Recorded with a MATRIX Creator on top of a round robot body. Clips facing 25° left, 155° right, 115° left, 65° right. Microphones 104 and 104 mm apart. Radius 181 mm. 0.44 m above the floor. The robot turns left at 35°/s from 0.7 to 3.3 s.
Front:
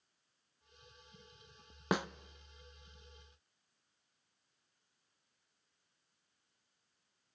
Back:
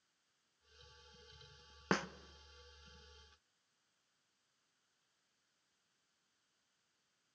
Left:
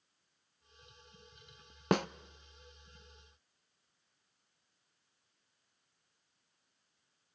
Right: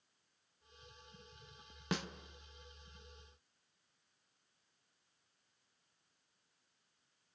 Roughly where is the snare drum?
Left.